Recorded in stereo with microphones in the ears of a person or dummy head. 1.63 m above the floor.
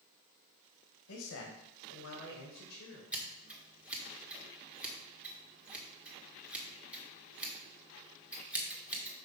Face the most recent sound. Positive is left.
turn(degrees=-10)  # may be behind; listen again after turning